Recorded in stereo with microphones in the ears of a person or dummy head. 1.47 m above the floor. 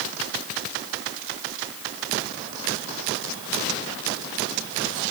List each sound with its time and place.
Only background noise.